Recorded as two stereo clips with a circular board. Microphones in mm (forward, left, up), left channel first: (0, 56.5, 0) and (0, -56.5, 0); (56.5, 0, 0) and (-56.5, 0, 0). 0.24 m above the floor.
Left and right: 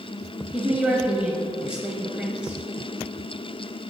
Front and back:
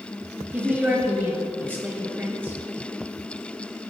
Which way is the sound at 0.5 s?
150° right.